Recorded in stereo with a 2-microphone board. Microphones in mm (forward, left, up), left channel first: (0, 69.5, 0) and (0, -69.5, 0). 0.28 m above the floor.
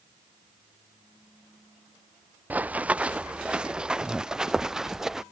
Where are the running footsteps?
10° right (ahead or behind); by 5.2 s 5° right (ahead or behind).